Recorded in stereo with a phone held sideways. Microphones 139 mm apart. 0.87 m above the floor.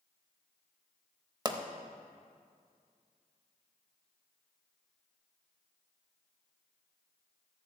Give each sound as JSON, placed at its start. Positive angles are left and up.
{"t": 1.4, "sound": "a pop", "side_deg": -30, "distance_m": 0.6}